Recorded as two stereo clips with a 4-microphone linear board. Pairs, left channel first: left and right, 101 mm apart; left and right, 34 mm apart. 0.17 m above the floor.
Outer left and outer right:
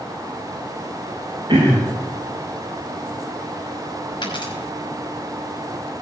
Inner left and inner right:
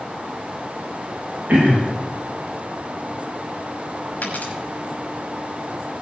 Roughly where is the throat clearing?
Right.